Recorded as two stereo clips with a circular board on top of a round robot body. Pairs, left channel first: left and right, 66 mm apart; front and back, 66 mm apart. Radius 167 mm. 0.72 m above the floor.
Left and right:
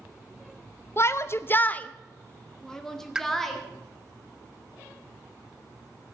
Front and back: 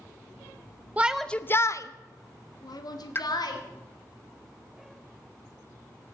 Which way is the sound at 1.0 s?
120° left.